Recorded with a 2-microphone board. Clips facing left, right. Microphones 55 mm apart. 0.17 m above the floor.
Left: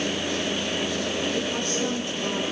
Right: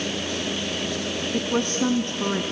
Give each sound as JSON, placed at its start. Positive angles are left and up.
{"t": 1.3, "sound": "a woman speaking", "side_deg": -25, "distance_m": 1.2}